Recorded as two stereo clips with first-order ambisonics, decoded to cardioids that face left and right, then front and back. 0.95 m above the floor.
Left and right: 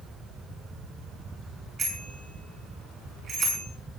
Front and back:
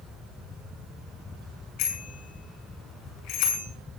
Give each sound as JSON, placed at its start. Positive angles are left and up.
{"t": 1.8, "sound": "a bicycle bell", "azimuth_deg": -30, "distance_m": 7.0}